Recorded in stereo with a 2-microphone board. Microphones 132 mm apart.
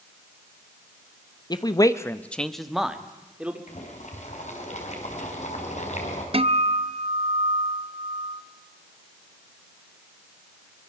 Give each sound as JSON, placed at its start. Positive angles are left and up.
{"t": 1.5, "sound": "a man speaking", "side_deg": 30, "distance_m": 1.0}
{"t": 3.7, "sound": "boiling", "side_deg": 60, "distance_m": 4.0}
{"t": 6.3, "sound": "a guitar", "side_deg": -45, "distance_m": 0.8}